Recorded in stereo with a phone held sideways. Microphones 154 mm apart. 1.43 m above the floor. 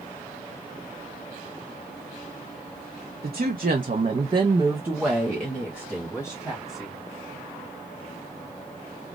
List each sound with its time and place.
3.2 s a woman speaking: 80° right, 0.9 m; by 7.0 s 25° left (ahead or behind), 1.7 m